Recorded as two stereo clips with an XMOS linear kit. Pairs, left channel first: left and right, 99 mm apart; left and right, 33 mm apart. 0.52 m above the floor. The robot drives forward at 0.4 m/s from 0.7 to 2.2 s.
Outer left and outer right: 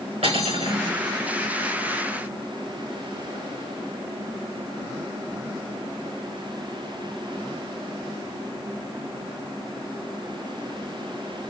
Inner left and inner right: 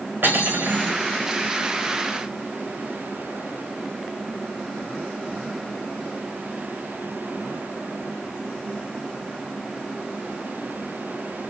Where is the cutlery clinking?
85° right, 4.5 m.